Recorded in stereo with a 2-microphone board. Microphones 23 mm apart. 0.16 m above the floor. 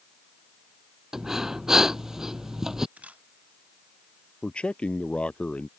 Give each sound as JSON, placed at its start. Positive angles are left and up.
{"t": 1.1, "sound": "breathing", "side_deg": -20}
{"t": 3.0, "sound": "a camera shutter", "side_deg": -70}
{"t": 4.4, "sound": "a man speaking", "side_deg": 50}